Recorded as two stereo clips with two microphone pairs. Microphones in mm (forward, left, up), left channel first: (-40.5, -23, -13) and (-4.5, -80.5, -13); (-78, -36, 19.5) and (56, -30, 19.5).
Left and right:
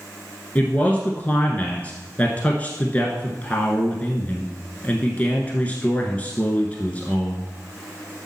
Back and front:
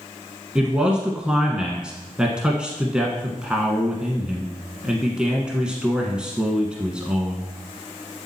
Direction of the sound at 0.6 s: 80° left.